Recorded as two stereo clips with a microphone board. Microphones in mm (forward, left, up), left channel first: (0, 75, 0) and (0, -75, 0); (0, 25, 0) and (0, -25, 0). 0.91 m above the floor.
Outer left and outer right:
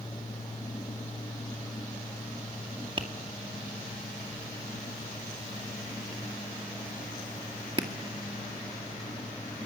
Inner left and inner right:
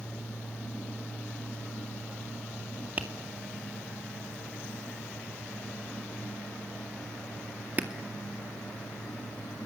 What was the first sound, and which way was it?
Tapping, 35° right (ahead or behind).